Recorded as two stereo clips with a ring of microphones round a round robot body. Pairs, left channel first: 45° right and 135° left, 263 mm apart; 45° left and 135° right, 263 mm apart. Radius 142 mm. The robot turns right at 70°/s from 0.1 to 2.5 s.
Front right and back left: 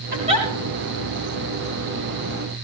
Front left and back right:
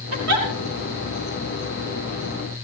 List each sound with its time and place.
0.1 s a giggle: 170° right, 4.5 m; by 0.5 s 145° right, 4.5 m